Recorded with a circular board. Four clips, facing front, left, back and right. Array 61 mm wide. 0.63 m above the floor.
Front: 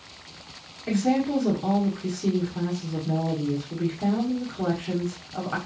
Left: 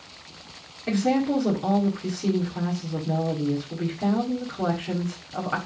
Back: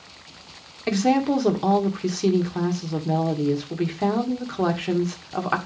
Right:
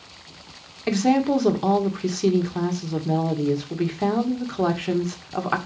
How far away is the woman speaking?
About 1.8 m.